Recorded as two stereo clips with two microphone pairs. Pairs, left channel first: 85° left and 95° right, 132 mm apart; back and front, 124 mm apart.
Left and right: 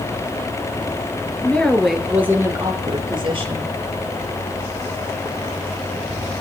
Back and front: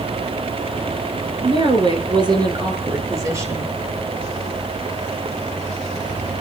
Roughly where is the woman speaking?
Ahead.